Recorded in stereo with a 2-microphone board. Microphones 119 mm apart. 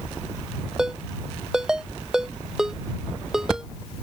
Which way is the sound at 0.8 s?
5° right (ahead or behind).